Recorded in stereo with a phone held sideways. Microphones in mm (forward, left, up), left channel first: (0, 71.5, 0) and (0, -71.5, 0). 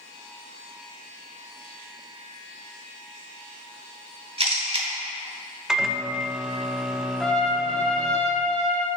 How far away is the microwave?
About 0.5 m.